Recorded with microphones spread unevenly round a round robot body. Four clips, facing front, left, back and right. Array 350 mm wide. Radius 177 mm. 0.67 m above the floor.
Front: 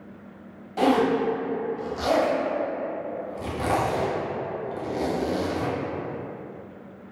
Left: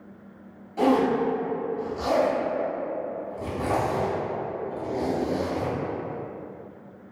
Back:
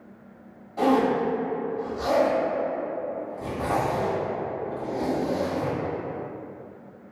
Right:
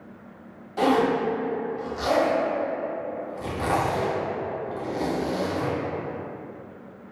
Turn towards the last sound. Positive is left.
turn(degrees=10)